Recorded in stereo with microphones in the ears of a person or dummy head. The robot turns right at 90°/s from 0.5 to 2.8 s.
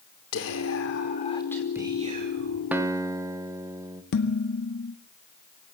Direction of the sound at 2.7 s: 5° right (ahead or behind).